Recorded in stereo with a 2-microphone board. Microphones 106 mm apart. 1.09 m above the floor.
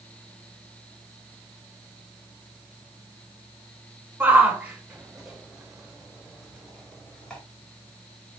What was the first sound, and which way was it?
A shout, 15° right (ahead or behind).